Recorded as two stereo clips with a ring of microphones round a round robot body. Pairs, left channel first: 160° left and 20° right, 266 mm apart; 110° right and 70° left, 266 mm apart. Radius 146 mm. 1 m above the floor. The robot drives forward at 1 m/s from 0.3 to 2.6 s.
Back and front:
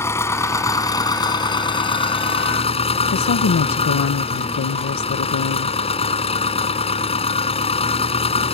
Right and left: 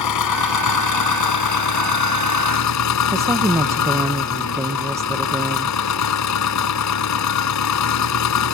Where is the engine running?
120° right; by 8.6 s 135° right.